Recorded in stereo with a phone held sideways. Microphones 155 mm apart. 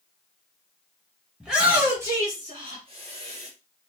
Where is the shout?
5° right (ahead or behind), 1.4 m; by 3.5 s 45° right (ahead or behind), 1.6 m.